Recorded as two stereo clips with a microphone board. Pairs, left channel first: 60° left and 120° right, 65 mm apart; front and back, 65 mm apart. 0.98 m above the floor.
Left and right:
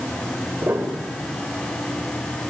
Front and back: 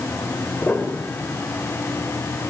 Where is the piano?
65° right, 3.5 m.